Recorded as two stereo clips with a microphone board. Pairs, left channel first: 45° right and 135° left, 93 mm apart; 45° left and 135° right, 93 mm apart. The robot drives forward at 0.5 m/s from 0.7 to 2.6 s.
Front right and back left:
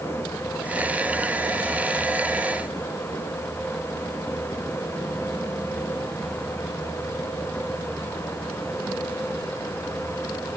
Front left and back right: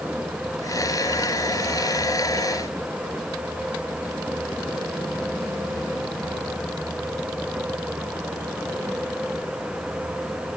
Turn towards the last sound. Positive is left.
No sound to turn to.